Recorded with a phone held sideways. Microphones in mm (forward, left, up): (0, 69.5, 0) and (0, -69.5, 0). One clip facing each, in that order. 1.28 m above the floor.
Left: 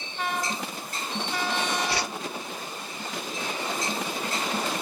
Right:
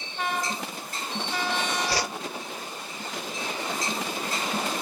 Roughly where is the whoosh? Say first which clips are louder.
Right 1 dB; right.